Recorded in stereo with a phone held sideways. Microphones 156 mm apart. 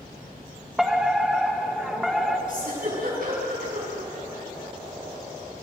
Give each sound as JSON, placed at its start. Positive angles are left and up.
{"t": 0.8, "sound": "a fire alarm", "side_deg": 0, "distance_m": 1.5}
{"t": 2.5, "sound": "a giggle", "side_deg": -70, "distance_m": 8.0}